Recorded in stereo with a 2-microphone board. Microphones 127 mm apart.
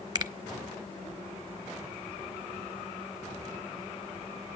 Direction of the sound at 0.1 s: 30° right (ahead or behind).